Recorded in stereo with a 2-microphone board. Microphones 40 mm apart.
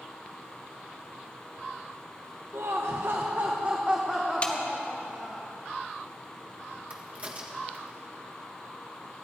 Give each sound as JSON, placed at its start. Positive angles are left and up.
{"t": 2.5, "sound": "laughter", "side_deg": -80, "distance_m": 1.1}
{"t": 4.4, "sound": "a snare drum", "side_deg": 30, "distance_m": 1.4}
{"t": 6.9, "sound": "a crack", "side_deg": -30, "distance_m": 1.7}